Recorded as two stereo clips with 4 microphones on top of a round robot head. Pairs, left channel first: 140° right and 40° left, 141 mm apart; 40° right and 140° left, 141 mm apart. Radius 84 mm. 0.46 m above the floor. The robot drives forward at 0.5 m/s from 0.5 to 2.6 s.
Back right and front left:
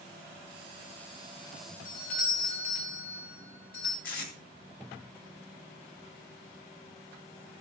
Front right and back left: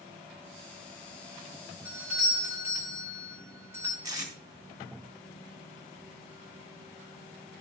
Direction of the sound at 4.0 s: 155° right.